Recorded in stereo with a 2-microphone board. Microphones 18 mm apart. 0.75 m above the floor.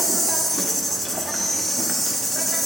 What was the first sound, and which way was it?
An insect, 10° left (ahead or behind).